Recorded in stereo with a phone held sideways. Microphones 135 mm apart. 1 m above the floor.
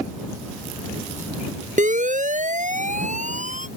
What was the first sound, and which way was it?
A siren, 70° right (ahead or behind).